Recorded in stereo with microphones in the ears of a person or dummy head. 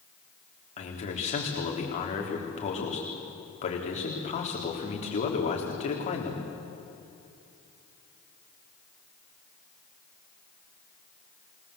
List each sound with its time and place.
0.8 s a man speaking: 35° left (ahead or behind), 3.5 m